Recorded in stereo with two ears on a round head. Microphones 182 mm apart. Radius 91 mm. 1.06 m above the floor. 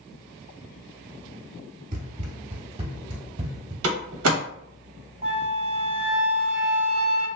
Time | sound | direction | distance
1.9 | running footsteps | 40° right (ahead or behind) | 1.2 m
3.8 | a door slam | 80° right | 0.8 m
5.2 | a flute | 30° right (ahead or behind) | 0.7 m